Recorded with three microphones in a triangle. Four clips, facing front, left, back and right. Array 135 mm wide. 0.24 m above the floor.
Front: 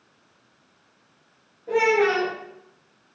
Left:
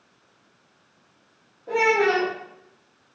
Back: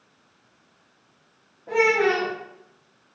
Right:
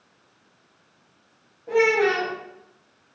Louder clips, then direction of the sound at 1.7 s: Right 1 dB, front 1 dB; straight behind.